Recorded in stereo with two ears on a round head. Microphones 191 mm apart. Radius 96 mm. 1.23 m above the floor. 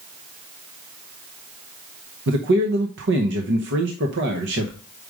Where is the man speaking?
60° right (ahead or behind), 0.9 m.